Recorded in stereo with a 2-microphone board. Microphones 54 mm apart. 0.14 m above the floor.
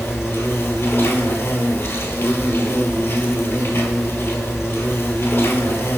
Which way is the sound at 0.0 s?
55° left (ahead or behind).